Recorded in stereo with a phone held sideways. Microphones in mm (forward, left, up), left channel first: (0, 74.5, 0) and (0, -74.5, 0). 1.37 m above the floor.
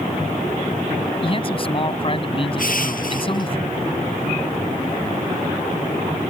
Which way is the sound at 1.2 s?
35° left (ahead or behind).